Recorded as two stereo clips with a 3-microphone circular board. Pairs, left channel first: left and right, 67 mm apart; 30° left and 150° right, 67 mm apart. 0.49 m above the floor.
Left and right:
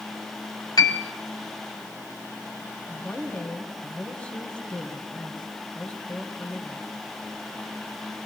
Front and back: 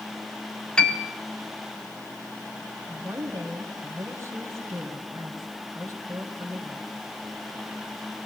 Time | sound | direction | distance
0.8 | a piano | 105° left | 2 m
2.9 | a woman speaking | 160° left | 2.5 m